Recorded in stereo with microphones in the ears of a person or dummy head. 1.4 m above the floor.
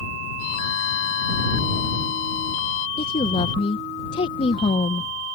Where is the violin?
55° left (ahead or behind).